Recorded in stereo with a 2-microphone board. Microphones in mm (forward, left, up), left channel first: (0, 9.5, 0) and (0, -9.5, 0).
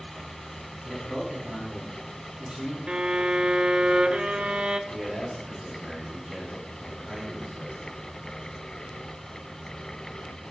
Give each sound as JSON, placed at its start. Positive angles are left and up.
{"t": 0.8, "sound": "a man speaking", "side_deg": -65, "distance_m": 5.0}
{"t": 2.9, "sound": "a violin", "side_deg": -45, "distance_m": 0.6}
{"t": 4.9, "sound": "a man speaking", "side_deg": -25, "distance_m": 3.0}